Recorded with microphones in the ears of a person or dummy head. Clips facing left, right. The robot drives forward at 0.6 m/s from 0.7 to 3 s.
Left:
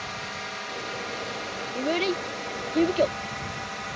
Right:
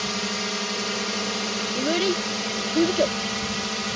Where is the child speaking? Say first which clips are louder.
Right 2 dB; 10° right (ahead or behind); by 3.2 s 5° right (ahead or behind).